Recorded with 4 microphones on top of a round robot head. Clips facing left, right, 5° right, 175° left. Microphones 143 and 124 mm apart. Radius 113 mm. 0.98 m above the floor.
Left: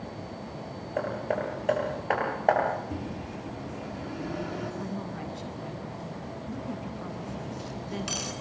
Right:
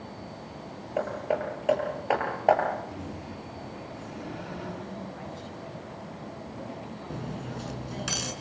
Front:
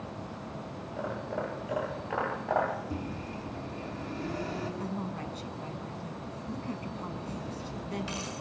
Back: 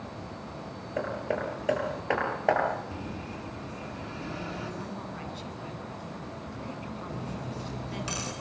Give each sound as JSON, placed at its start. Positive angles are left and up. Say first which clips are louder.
{"t": 1.0, "sound": "hammering", "louder": "right 1 dB, back 4 dB", "azimuth_deg": -170, "distance_m": 10.0}
{"t": 2.9, "sound": "a microwave", "louder": "left 3 dB, front 1 dB", "azimuth_deg": 40, "distance_m": 9.5}
{"t": 4.8, "sound": "a woman speaking", "louder": "left 3 dB, front 2 dB", "azimuth_deg": 45, "distance_m": 9.5}
{"t": 7.1, "sound": "cutlery clinking", "louder": "even, back 1 dB", "azimuth_deg": -125, "distance_m": 7.0}